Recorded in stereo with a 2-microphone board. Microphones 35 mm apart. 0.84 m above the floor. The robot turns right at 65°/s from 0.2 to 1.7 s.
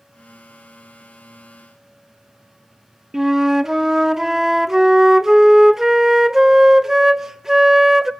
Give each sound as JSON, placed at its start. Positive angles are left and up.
{"t": 3.1, "sound": "a flute", "side_deg": -15, "distance_m": 0.6}